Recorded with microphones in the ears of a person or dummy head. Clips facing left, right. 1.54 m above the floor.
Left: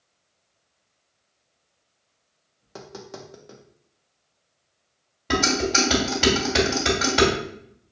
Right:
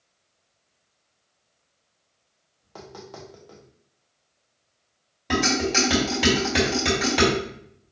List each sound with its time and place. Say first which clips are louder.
2.6 s tapping: left 1 dB; 20° left (ahead or behind), 0.6 m
5.3 s dishes clattering: even; 5° right (ahead or behind), 1.7 m